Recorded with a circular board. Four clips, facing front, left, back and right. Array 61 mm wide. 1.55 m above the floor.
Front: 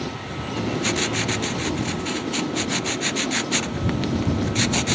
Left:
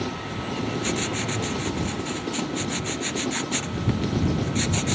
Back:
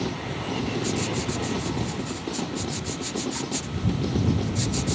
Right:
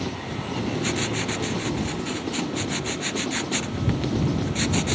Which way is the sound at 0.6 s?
10° right.